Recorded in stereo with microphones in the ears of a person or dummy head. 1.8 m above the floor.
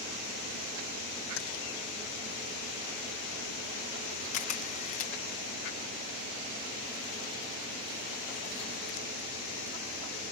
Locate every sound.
1.4 s keys jangling: 80° left
4.3 s a camera shutter: 40° left (ahead or behind)